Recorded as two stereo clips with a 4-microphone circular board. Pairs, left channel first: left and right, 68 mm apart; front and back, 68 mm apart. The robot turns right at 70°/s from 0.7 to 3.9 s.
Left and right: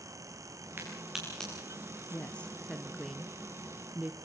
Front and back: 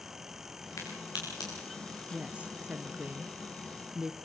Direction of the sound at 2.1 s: 120° left.